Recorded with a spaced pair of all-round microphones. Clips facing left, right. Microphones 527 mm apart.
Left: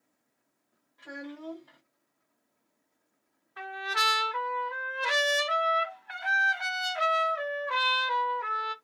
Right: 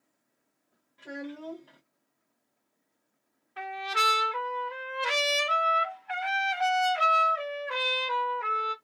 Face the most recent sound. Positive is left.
turn(degrees=-50)  # may be behind; listen again after turning